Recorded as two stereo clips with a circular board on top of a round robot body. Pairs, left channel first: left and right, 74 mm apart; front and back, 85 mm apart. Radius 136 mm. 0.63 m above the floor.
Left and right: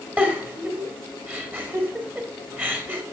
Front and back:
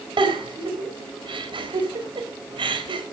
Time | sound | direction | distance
0.2 | a giggle | 155° right | 3 m